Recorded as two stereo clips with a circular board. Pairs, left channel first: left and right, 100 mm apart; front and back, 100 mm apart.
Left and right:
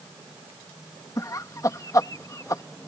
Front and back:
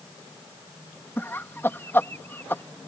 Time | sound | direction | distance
1.2 | laughter | 55° left | ?